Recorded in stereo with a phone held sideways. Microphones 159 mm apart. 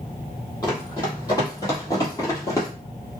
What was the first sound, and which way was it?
Running footsteps, 20° left (ahead or behind).